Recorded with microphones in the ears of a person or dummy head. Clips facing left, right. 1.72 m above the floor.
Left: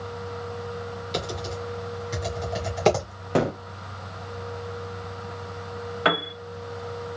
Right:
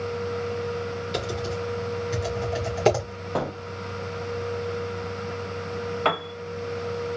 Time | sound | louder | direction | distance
1.1 | typing on a keyboard | even | 5° right (ahead or behind) | 2.5 m
3.4 | a gunshot | left 5 dB | 35° left (ahead or behind) | 0.6 m
6.0 | a piano | left 4 dB | 15° left (ahead or behind) | 1.3 m